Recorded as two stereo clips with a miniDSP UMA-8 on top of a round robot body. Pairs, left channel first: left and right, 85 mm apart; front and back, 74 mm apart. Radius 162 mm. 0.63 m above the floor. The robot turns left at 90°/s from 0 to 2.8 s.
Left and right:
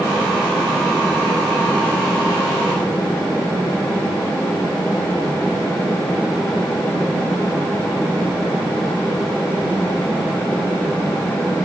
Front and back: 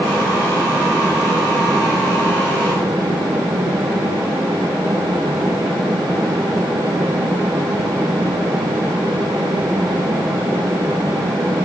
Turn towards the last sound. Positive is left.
No sound to turn to.